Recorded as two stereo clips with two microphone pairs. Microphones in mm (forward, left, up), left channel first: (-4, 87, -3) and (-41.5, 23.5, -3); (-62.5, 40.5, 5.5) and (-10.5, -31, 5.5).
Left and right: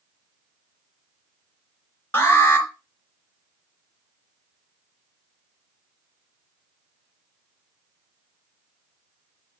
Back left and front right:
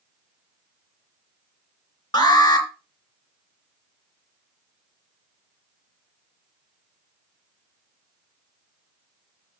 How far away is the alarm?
About 3 m.